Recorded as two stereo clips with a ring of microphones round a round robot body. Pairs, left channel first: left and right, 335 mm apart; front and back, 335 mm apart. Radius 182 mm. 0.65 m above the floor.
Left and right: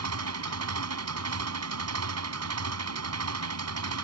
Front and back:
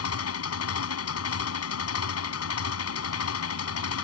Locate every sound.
0.0 s an engine running: 45° right